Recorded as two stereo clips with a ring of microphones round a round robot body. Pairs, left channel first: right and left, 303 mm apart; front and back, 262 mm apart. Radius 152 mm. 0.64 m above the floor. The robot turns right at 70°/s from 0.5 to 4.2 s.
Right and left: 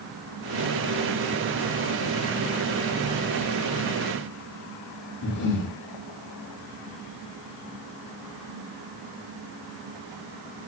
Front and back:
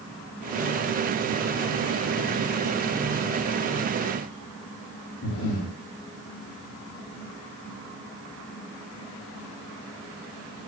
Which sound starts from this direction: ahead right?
Breathing, at 5.2 s.